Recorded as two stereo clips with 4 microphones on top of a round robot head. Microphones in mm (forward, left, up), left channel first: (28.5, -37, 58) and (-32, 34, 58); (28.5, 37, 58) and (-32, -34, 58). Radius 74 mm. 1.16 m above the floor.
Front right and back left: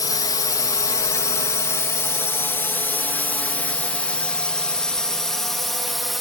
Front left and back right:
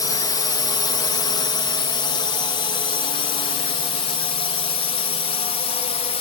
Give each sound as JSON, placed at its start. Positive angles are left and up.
{"t": 0.0, "sound": "a drone", "azimuth_deg": 0}